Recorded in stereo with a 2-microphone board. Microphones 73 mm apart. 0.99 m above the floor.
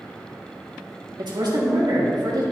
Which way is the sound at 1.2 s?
75° right (ahead or behind).